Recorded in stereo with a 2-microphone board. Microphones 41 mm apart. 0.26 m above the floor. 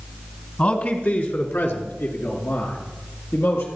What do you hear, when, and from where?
0.6 s a man speaking: 35° left (ahead or behind), 1.8 m; by 3.7 s 80° left, 5 m